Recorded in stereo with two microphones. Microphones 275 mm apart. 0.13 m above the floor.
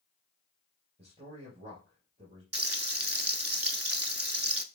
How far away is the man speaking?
About 2.5 m.